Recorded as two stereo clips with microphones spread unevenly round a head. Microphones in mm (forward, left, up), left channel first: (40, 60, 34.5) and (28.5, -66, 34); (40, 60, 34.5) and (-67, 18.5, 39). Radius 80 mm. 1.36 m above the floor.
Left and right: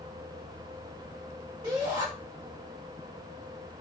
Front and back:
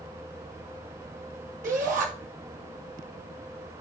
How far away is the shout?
About 3.5 m.